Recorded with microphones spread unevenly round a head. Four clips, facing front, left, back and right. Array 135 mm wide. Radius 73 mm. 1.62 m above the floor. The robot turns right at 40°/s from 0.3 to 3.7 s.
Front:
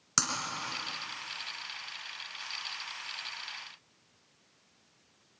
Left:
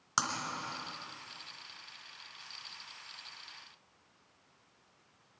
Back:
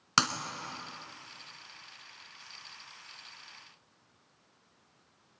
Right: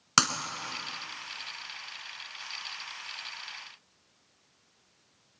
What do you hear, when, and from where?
0.2 s breaking glass: 120° right, 2.5 m; by 0.3 s 115° right, 2.5 m